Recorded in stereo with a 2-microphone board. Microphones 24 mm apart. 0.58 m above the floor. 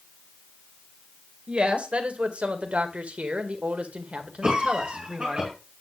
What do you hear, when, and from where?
1.5 s a woman speaking: 55° right (ahead or behind), 1.9 m; by 5.4 s 50° right (ahead or behind), 1.9 m
4.4 s a cough: 35° right (ahead or behind), 3.5 m